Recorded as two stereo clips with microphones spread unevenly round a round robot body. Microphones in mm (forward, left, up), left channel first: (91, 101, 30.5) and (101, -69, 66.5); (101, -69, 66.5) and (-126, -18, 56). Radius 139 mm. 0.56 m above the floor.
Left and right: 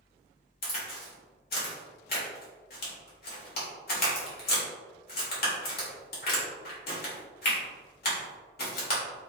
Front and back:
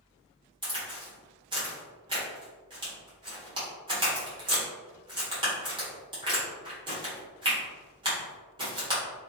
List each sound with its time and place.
0.6 s a crack: 100° left, 1.2 m